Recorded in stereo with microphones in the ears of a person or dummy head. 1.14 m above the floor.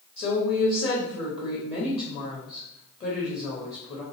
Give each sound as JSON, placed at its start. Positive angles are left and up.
{"t": 0.2, "sound": "a woman speaking", "side_deg": 30, "distance_m": 1.2}